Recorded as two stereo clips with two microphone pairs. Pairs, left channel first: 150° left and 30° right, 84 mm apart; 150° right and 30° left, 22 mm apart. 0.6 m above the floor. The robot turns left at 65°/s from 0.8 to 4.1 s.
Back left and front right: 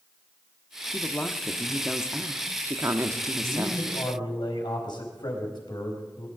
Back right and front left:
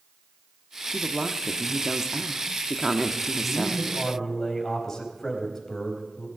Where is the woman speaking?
110° left, 0.9 m; by 3.8 s 80° right, 0.9 m.